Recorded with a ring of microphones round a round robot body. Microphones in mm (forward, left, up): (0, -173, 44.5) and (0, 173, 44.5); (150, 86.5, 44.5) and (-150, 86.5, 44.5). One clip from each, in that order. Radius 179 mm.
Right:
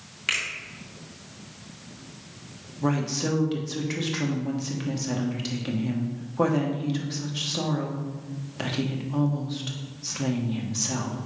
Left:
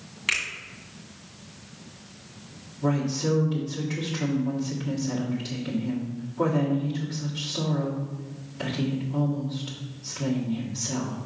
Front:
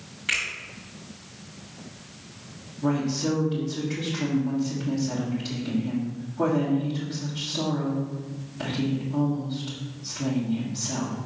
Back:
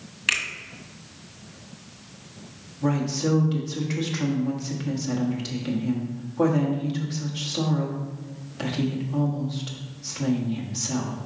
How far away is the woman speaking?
About 1.4 m.